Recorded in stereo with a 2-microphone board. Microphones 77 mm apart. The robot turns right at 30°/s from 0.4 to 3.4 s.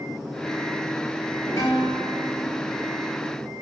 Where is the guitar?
120° left, 9.5 m; by 2.6 s 150° left, 9.5 m.